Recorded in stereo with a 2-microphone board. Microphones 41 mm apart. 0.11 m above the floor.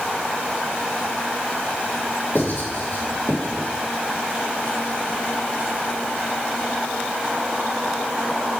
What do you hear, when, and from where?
2.4 s writing: 65° left (ahead or behind), 4 m